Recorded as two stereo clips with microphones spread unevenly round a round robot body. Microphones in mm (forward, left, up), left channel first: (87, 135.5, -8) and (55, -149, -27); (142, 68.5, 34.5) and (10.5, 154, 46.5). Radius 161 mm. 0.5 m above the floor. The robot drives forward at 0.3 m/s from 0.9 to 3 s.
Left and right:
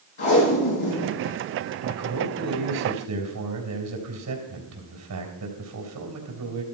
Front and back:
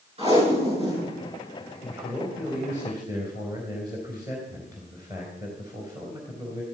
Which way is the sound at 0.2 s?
100° left.